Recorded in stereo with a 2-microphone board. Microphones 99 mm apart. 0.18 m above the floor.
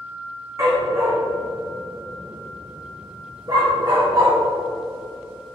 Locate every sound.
0.6 s a dog barking: 30° right (ahead or behind), 3 m; by 4.4 s 45° right (ahead or behind), 5 m